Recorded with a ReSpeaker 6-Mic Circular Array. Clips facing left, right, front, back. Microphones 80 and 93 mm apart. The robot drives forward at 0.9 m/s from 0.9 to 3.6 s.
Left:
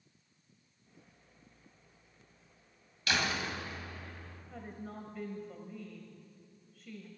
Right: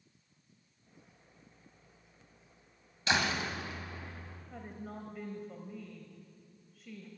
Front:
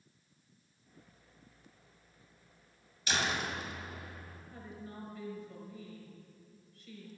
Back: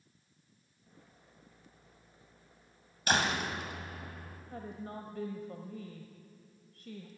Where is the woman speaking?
Straight behind, 1.4 m.